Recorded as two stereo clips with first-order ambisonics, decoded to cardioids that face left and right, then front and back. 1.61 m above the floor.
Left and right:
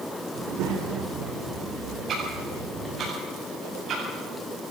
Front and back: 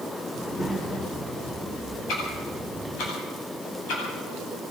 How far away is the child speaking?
About 3 m.